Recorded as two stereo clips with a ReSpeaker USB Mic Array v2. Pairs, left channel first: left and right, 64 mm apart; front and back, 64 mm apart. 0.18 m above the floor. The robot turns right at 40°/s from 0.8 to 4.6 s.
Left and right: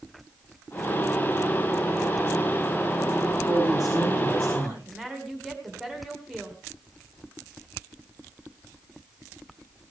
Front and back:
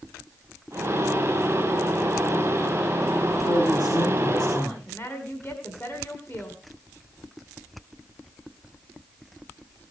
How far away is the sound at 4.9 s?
About 1.8 m.